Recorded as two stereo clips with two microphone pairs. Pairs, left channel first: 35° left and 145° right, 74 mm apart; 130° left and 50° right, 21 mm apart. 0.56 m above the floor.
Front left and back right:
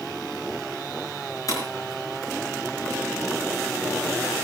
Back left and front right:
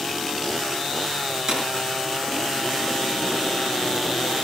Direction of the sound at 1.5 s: 5° left.